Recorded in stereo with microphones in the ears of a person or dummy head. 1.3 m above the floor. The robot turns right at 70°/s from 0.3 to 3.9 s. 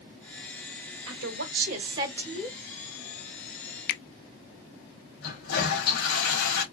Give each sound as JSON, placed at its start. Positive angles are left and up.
{"t": 1.1, "sound": "a woman speaking", "azimuth_deg": -95, "distance_m": 1.4}
{"t": 3.9, "sound": "a finger snap", "side_deg": 60, "distance_m": 0.5}
{"t": 5.2, "sound": "a toilet flushing", "side_deg": 65, "distance_m": 3.0}